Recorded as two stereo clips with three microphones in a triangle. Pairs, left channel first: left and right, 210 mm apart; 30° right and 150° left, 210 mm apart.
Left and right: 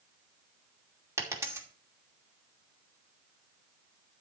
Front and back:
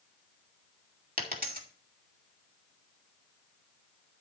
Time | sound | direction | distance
1.2 | a dropped coin | 165° right | 2.5 m